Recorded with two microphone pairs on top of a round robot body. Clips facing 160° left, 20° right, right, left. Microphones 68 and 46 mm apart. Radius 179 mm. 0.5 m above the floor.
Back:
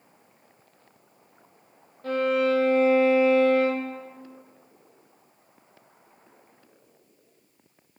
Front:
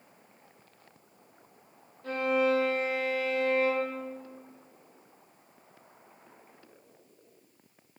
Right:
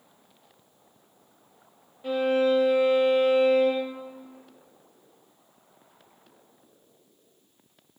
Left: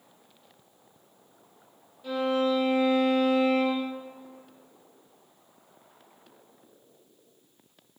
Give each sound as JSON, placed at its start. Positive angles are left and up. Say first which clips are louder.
{"t": 2.0, "sound": "a violin", "louder": "back 4 dB, right 3 dB", "azimuth_deg": -155, "distance_m": 0.6}